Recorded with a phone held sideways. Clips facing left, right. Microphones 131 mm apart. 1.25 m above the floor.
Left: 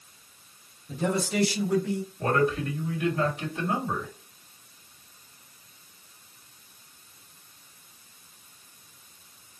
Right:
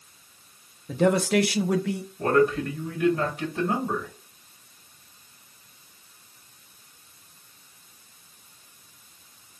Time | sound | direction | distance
0.9 | a man speaking | 75° right (ahead or behind) | 0.5 m
2.2 | a man speaking | 50° right (ahead or behind) | 2.0 m